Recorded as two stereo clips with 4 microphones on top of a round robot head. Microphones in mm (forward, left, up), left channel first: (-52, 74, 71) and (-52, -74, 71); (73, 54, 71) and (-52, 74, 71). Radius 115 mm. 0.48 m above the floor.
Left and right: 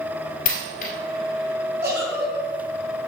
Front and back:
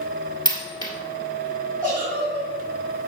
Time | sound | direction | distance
0.5 | a dropped coin | 50° left | 1.9 m
1.8 | a giggle | 75° right | 3 m